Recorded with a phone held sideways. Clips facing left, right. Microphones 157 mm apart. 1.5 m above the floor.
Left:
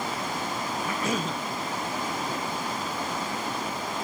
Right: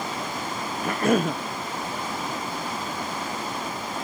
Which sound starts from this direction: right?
A cough, at 0.8 s.